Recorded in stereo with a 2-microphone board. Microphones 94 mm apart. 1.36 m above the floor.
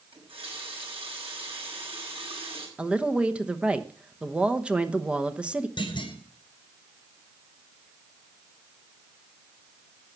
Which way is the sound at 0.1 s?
80° right.